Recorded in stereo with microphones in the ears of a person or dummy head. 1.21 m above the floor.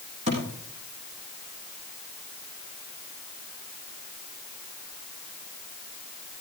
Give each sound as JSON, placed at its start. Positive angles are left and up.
{"t": 0.3, "sound": "a thud", "side_deg": -35, "distance_m": 5.5}